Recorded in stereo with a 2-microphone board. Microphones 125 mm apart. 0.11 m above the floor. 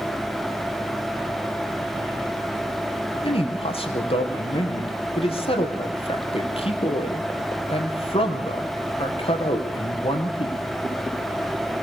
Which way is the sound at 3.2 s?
50° left (ahead or behind).